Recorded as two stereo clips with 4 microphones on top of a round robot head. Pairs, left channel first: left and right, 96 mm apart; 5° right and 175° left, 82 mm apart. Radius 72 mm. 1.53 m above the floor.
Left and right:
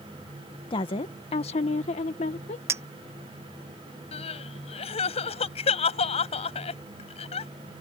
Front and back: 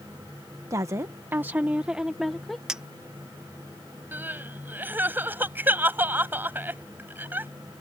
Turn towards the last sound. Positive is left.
turn(degrees=105)